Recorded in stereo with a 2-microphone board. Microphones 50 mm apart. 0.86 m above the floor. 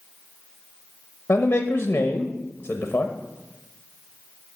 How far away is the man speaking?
About 0.6 m.